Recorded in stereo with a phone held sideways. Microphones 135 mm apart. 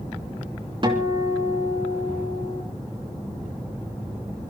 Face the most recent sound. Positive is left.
turn(degrees=-40)  # may be behind; listen again after turning